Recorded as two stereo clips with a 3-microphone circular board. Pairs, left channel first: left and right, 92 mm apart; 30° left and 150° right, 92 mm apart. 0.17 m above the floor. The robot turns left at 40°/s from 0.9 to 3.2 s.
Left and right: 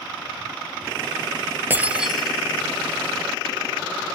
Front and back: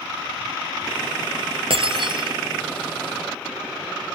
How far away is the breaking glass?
About 1.7 m.